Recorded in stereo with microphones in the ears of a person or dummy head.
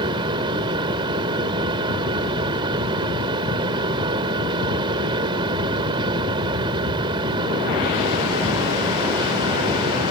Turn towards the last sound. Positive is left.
turn(degrees=-30)  # may be behind; listen again after turning